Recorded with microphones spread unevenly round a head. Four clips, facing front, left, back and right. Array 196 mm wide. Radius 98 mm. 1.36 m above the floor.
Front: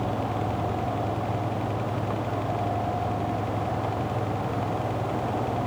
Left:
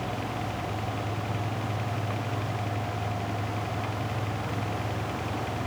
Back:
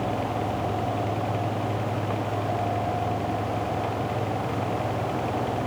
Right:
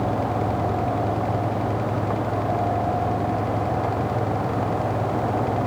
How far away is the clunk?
I don't hear a clunk.